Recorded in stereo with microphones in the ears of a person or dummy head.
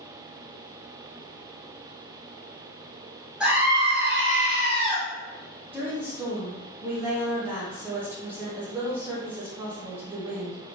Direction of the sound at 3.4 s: 10° right (ahead or behind).